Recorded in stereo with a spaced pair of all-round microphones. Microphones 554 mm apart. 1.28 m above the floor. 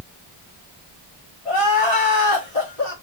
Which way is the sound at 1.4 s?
80° left.